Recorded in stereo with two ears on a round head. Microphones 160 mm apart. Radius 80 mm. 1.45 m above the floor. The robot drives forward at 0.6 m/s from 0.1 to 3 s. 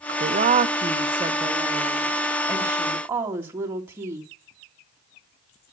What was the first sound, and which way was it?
A woman speaking, 55° right (ahead or behind).